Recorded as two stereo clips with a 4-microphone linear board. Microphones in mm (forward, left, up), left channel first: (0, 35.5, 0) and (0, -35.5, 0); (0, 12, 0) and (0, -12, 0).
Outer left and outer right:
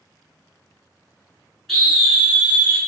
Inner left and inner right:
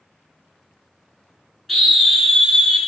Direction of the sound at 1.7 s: 5° left (ahead or behind).